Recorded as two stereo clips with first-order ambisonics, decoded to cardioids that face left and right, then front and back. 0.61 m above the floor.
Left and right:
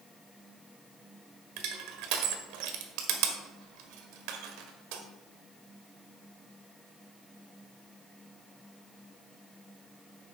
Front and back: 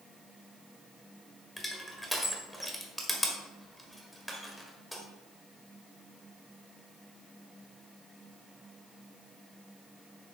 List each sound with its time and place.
1.6 s crushing: 90° right, 1.3 m